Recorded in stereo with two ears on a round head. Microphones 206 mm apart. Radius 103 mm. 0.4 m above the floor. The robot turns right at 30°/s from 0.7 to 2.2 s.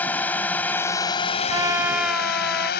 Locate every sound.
0.0 s a drone: 10° left; by 2.8 s 55° left
1.5 s a trumpet: 20° right (ahead or behind); by 2.7 s centre (ahead or behind)